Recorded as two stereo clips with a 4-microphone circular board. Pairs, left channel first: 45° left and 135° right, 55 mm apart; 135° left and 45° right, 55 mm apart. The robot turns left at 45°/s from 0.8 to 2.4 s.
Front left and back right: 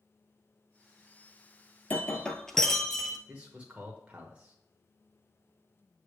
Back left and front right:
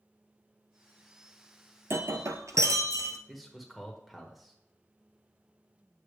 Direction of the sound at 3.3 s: 135° right.